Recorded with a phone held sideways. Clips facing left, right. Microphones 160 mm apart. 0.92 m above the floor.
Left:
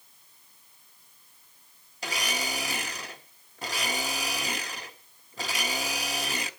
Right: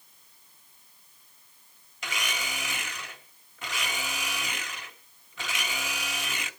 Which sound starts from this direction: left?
A blender, at 2.0 s.